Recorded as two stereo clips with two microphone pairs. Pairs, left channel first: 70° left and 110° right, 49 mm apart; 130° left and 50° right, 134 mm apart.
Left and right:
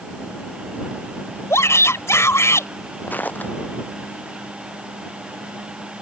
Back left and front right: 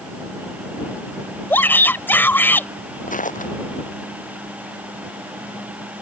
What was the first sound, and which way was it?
A shout, 55° left.